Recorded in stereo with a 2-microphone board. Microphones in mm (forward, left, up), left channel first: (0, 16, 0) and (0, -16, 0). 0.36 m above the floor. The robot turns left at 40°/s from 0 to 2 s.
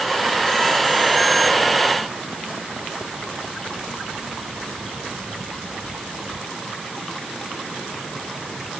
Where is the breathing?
I don't hear breathing.